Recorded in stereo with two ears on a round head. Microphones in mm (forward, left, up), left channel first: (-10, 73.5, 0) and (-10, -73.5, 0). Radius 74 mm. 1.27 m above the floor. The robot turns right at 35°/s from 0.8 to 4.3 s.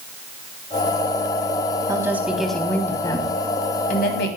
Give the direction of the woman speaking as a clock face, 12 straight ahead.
1 o'clock.